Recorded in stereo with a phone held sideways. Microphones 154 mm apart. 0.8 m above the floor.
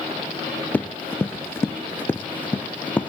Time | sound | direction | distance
0.7 | running footsteps | 10° left (ahead or behind) | 0.9 m